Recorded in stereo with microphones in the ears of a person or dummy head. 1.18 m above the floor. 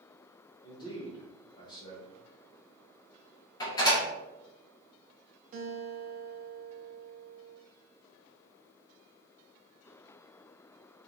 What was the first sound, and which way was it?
A man speaking, 25° left (ahead or behind).